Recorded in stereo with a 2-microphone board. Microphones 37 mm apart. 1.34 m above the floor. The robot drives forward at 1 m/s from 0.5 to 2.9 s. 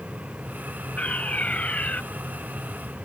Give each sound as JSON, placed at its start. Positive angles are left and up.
{"t": 1.0, "sound": "a fire alarm", "side_deg": 40}